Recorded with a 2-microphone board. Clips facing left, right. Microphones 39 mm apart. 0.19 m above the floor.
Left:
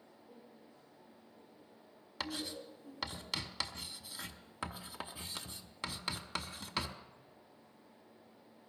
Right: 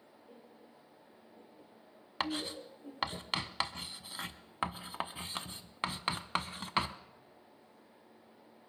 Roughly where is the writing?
Right.